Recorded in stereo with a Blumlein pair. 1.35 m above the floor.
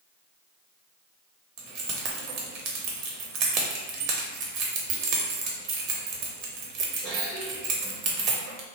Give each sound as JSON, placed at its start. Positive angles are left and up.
{"t": 1.6, "sound": "keys jangling", "azimuth_deg": -40, "distance_m": 0.7}